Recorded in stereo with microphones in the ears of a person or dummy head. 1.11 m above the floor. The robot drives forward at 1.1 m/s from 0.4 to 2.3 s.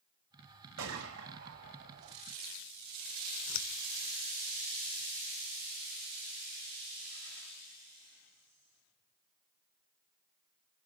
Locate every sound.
0.8 s a gunshot: 65° right (ahead or behind), 3 m; by 2.1 s 45° right (ahead or behind), 3.5 m
3.5 s scissors: 75° left (ahead or behind), 0.6 m